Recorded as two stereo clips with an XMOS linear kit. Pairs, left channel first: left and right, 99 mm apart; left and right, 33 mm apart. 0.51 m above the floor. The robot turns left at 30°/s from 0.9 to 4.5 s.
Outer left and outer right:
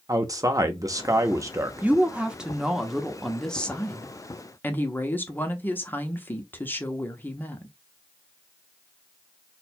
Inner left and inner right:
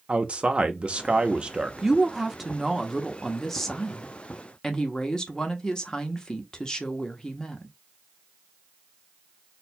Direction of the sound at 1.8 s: 15° right (ahead or behind).